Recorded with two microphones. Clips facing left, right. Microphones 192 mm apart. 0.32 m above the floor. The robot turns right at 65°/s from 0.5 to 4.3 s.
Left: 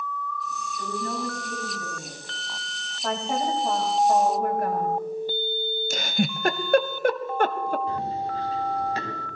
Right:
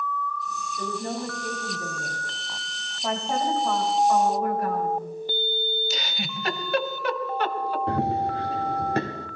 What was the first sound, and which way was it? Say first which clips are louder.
A woman speaking: right 1 dB; 140° right.